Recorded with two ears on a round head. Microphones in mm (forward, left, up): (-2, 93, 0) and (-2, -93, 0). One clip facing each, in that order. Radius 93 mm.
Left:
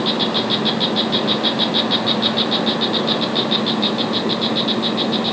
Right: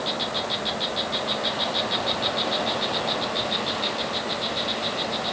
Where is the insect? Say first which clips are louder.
Left 9 dB; 65° left (ahead or behind).